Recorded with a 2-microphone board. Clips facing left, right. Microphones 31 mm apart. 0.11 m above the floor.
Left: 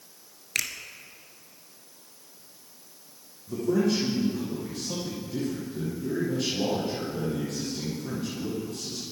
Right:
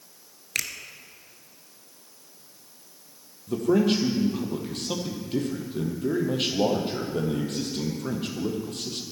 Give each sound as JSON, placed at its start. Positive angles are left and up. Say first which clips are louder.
{"t": 0.6, "sound": "a finger snap", "louder": "even", "side_deg": 0, "distance_m": 1.2}
{"t": 3.5, "sound": "a man speaking", "louder": "right 3 dB", "side_deg": -60, "distance_m": 3.0}